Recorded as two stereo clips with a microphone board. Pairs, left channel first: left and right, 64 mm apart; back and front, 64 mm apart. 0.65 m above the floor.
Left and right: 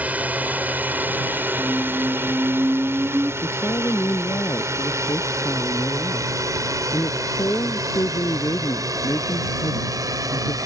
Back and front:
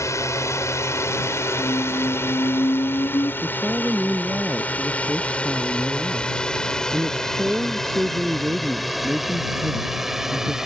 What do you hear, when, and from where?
0.0 s a drone: 155° right; by 10.7 s 80° right
1.6 s a squeak: 160° right
3.4 s a woman speaking: 65° left